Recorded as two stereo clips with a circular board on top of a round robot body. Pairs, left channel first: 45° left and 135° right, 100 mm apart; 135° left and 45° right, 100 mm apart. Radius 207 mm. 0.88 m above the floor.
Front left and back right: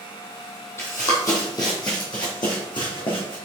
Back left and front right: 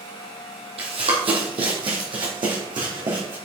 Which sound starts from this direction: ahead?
Running footsteps, at 0.8 s.